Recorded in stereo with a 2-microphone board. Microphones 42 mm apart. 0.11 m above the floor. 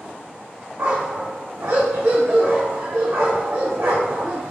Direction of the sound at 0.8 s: 80° right.